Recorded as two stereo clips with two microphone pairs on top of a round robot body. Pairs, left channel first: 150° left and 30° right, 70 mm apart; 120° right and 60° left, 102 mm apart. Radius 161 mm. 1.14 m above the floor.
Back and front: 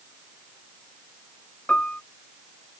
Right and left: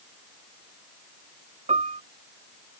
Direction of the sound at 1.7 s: 75° left.